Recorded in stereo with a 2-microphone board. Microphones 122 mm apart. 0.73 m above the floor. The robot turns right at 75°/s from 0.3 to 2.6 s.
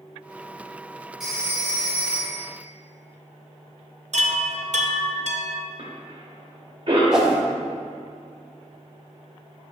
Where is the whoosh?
5° right (ahead or behind), 0.9 m.